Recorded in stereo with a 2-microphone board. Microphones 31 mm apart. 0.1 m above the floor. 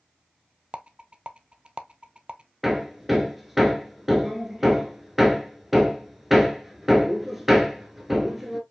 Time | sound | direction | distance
0.7 | a rattle | 35° right (ahead or behind) | 0.5 m
2.6 | hammering | 5° right (ahead or behind) | 1.1 m